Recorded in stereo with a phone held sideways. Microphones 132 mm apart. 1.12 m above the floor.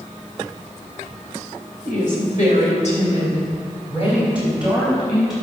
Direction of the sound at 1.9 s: 85° left.